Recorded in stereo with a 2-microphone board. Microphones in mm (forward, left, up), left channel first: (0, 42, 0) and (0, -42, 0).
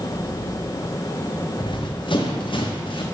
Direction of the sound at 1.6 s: 80° left.